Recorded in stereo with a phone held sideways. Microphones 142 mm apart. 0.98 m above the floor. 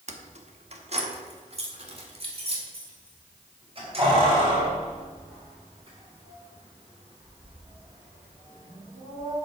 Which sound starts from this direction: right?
Keys jangling, at 0.1 s.